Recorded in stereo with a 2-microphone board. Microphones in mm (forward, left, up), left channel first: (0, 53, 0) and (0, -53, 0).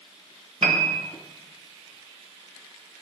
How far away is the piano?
About 1.1 m.